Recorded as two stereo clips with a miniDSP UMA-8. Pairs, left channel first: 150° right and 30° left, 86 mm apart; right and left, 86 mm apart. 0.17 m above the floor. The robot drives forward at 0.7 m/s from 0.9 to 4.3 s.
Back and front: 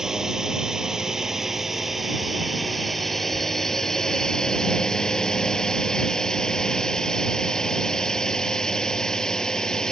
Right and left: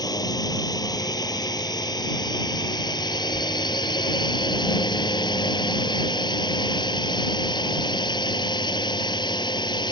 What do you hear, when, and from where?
0.0 s a drone: 55° right; by 9.9 s 70° right